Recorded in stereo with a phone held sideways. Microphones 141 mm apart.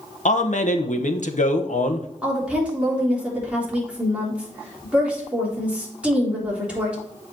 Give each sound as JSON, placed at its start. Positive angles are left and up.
{"t": 0.2, "sound": "a man speaking", "side_deg": 70, "distance_m": 0.9}
{"t": 2.2, "sound": "a woman speaking", "side_deg": -10, "distance_m": 3.5}